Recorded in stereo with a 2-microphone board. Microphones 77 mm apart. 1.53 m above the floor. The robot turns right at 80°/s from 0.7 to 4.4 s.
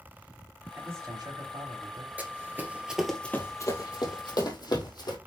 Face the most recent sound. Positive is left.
turn(degrees=55)  # may be behind; listen again after turning